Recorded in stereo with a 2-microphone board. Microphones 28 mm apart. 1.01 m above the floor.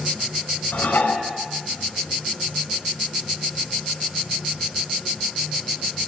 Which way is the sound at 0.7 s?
75° left (ahead or behind).